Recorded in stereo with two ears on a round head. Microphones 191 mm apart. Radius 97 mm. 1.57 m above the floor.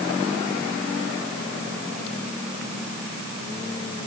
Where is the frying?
No frying in this recording.